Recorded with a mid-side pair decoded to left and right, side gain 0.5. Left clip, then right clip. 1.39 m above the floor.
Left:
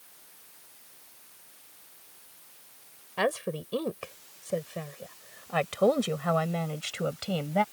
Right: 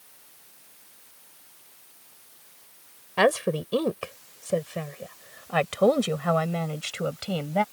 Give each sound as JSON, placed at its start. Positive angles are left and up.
{"t": 3.2, "sound": "a woman speaking", "azimuth_deg": -40}